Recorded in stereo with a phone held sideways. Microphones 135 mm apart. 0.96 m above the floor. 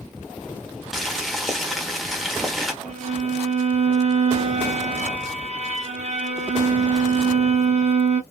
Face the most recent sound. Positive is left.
turn(degrees=-55)  # may be behind; listen again after turning